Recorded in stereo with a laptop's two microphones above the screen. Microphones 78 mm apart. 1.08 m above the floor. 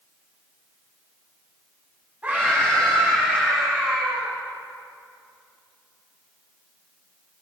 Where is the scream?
20° right (ahead or behind), 9.5 m; by 4.3 s 10° right (ahead or behind), 11.5 m.